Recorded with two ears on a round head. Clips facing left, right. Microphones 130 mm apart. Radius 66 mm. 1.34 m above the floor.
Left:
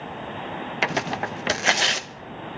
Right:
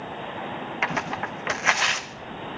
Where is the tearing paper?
35° left (ahead or behind), 0.7 m.